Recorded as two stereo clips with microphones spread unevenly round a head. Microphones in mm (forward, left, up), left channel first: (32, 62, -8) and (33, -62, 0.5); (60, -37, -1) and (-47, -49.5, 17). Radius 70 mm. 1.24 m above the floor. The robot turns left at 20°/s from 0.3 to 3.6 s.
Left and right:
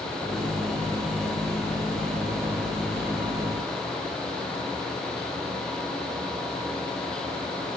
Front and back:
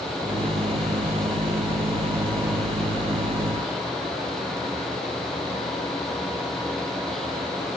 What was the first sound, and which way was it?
Only background noise.